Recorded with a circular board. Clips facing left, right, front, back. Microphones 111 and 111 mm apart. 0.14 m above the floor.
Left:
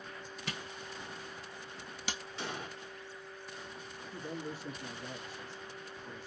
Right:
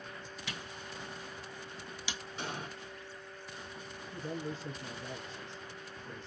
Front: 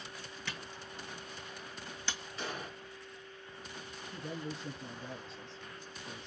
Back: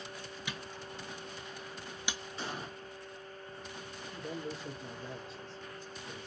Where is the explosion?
150° right, 1.9 m.